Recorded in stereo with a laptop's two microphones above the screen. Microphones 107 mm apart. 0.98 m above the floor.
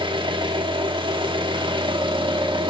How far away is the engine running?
About 1.9 m.